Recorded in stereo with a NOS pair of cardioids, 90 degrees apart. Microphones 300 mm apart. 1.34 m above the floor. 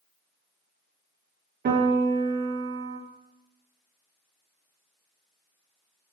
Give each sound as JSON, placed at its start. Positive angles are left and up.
{"t": 1.6, "sound": "a piano", "azimuth_deg": -35, "distance_m": 0.5}